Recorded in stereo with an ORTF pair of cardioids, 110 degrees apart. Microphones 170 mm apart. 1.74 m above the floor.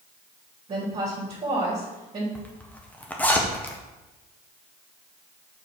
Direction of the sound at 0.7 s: 35° right.